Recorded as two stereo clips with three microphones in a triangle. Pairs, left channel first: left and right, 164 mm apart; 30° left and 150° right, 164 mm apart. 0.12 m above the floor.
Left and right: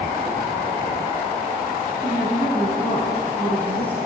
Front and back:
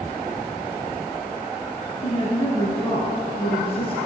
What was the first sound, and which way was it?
A woman speaking, 15° left.